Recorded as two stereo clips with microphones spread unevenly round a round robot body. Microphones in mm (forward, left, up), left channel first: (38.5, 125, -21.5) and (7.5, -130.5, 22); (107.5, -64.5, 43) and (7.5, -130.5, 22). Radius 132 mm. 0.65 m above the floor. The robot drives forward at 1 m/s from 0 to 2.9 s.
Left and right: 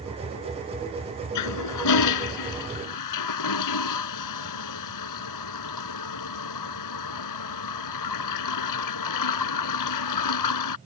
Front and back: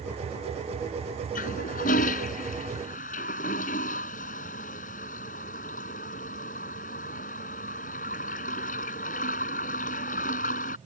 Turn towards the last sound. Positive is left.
turn(degrees=80)